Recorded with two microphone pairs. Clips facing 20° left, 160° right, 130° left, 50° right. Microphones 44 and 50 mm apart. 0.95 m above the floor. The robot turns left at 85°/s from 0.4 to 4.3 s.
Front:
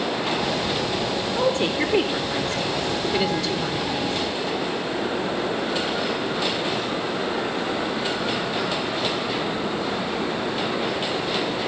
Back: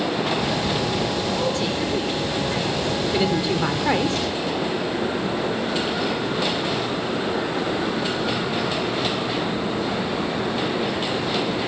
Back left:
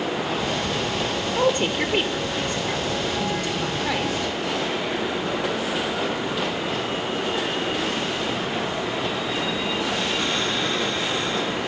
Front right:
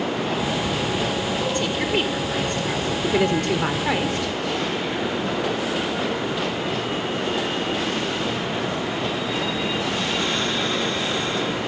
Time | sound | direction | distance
1.4 | a woman speaking | 90° left | 2.5 m